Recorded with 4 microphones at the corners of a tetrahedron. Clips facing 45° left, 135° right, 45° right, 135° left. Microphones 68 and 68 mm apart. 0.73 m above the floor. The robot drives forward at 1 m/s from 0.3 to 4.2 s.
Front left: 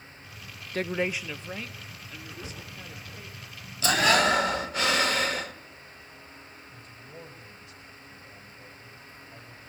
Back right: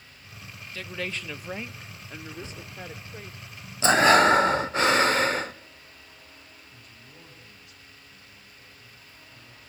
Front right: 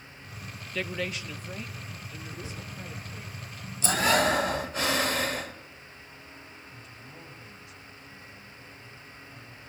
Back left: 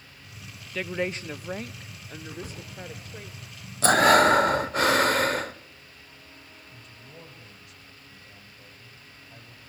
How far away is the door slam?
About 7.5 m.